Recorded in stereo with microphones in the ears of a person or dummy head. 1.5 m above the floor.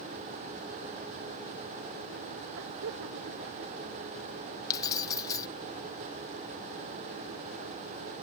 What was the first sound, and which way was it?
Laughter, 65° right (ahead or behind).